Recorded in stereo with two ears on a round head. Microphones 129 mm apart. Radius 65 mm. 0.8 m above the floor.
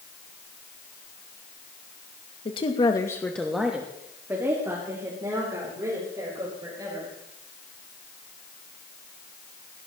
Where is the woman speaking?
35° left (ahead or behind), 1.2 m; by 7.1 s 25° right (ahead or behind), 5.5 m.